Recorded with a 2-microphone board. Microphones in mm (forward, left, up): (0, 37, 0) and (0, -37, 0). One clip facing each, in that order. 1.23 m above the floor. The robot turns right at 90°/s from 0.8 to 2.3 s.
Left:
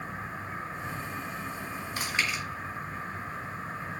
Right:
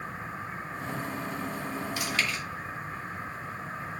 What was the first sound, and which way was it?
Chewing, 40° left (ahead or behind).